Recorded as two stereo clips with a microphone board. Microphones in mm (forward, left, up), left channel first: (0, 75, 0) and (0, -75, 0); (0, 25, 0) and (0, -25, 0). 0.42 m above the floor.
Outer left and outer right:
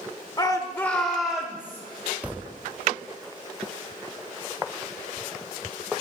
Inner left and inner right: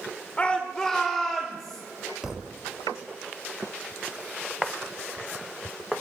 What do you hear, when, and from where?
0.4 s a shout: 25° left (ahead or behind), 0.9 m; by 1.8 s 10° right (ahead or behind), 1.5 m
2.2 s a thud: 10° right (ahead or behind), 0.5 m